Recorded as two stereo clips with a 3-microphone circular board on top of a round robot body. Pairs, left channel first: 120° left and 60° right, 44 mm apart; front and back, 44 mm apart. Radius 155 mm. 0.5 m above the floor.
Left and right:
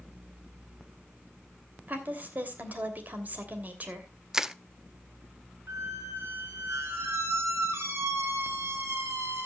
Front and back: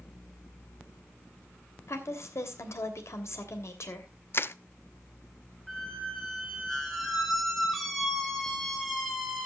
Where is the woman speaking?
10° right, 3 m.